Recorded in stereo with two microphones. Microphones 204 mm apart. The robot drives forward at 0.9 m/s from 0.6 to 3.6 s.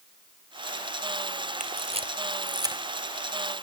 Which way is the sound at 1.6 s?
40° right (ahead or behind).